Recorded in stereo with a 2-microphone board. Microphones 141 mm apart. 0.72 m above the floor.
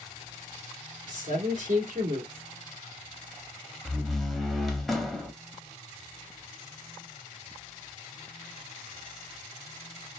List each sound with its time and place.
1.1 s a man speaking: 65° right (ahead or behind), 1.8 m
3.9 s a door slam: centre (ahead or behind), 0.7 m